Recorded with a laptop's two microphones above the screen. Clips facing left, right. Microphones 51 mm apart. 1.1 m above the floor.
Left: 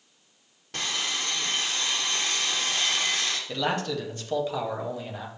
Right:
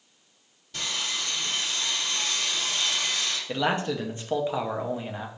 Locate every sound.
0.7 s sawing: 60° left (ahead or behind), 1.2 m
3.5 s a man speaking: 20° right (ahead or behind), 0.5 m